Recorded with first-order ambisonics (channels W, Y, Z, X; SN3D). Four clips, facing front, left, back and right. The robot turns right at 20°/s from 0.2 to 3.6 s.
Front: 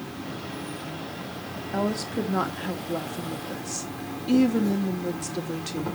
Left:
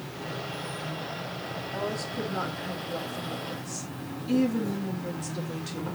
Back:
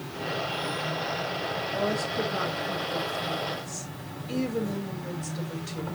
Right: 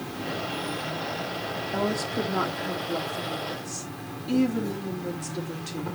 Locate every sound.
0.0 s an insect: 70° right, 3 m; by 6.0 s 5° right, 3 m
1.7 s a woman speaking: 40° right, 2 m; by 5.9 s 5° right, 2 m